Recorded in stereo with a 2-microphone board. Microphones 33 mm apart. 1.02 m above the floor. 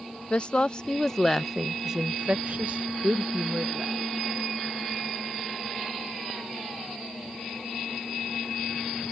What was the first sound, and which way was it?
A woman speaking, 30° left (ahead or behind).